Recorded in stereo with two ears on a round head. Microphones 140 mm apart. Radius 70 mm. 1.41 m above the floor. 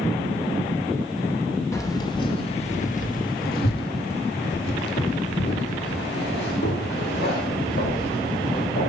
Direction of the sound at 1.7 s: 20° left (ahead or behind).